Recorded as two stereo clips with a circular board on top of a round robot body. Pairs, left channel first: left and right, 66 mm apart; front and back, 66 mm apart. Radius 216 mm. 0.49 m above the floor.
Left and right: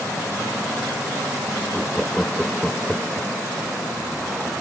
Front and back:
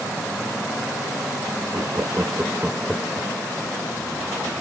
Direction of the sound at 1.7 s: 165° left.